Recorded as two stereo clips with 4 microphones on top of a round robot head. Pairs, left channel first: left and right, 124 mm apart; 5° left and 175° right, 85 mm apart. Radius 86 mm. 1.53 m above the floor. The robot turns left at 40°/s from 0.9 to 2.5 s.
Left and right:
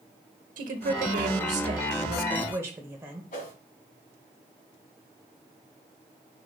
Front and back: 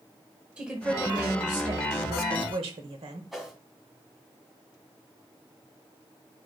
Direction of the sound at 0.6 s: 95° right.